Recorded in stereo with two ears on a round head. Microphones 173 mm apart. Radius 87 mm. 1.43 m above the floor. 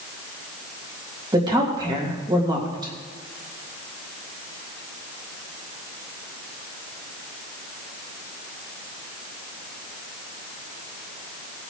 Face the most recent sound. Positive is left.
turn(degrees=-25)  # may be behind; listen again after turning